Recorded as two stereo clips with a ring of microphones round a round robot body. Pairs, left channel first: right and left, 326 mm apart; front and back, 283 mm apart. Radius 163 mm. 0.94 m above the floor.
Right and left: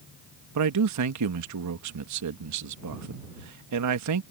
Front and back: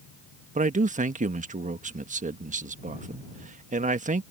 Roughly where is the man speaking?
Behind left.